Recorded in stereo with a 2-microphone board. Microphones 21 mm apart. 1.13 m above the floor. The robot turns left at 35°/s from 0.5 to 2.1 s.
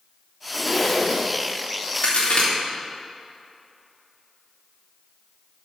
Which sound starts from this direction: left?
A crack, at 2.0 s.